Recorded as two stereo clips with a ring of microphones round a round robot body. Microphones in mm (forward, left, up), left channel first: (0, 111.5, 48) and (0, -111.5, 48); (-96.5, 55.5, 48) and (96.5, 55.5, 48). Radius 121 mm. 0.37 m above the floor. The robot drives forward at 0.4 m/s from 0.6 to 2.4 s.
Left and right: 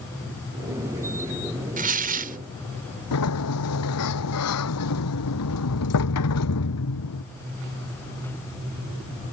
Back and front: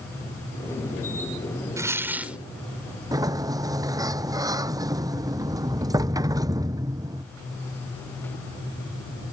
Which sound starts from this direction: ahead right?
Tearing paper, at 1.8 s.